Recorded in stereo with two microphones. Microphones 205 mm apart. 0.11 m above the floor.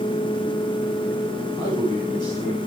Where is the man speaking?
20° left (ahead or behind), 9.5 m.